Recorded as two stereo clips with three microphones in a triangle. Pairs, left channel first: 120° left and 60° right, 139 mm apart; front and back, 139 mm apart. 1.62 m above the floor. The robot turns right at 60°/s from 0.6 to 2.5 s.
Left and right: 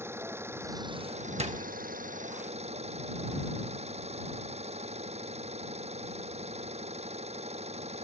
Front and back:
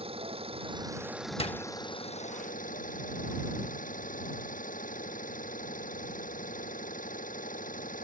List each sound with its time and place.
0.0 s an engine running: 135° right; by 8.1 s 20° right
1.4 s a door slam: 35° right; by 1.7 s 20° right